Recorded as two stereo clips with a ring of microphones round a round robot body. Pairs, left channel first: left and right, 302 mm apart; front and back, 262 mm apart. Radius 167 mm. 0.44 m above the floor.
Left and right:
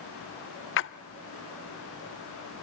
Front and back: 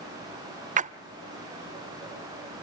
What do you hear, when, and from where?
0.8 s a splash: 125° left, 0.5 m